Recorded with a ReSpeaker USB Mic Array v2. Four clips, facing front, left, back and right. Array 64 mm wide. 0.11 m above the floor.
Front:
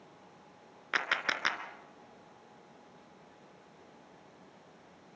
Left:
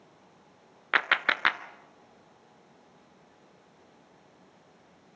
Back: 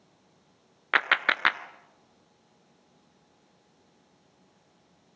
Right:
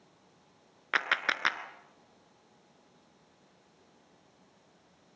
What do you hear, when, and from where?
0.9 s a clap: 150° left, 1.0 m